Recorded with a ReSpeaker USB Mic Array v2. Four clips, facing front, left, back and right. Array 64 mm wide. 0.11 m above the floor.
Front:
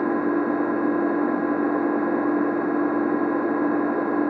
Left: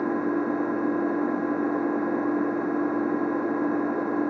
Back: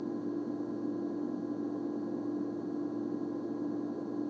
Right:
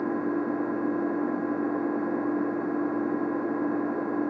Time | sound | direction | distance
0.0 | an engine running | 10° left | ?